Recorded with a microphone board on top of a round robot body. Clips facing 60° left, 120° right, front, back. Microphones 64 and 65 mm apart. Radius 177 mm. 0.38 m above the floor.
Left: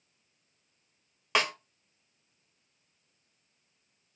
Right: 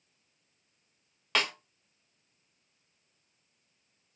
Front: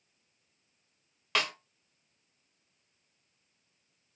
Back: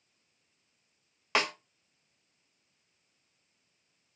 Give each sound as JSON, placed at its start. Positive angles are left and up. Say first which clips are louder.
{"t": 1.4, "sound": "a snare drum", "louder": "left 2 dB, back 2 dB", "azimuth_deg": 125, "distance_m": 1.2}